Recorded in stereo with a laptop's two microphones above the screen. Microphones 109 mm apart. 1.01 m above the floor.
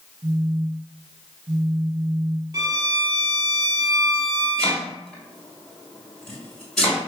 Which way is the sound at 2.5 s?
35° right (ahead or behind).